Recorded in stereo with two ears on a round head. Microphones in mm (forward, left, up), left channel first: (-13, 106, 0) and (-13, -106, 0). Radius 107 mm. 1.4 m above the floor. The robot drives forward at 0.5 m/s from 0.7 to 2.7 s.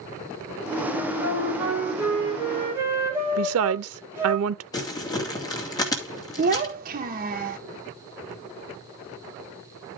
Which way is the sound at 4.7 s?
15° left (ahead or behind).